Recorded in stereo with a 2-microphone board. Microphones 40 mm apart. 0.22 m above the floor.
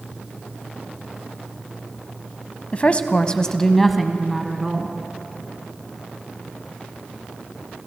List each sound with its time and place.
2.7 s a woman speaking: 35° left (ahead or behind), 1.3 m; by 5.0 s 10° right (ahead or behind), 2 m